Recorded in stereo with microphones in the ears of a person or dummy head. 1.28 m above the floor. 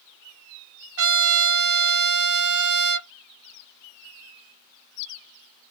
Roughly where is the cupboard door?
No cupboard door in this recording.